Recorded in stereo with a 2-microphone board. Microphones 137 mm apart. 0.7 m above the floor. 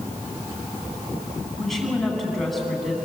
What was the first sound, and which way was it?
A woman speaking, centre (ahead or behind).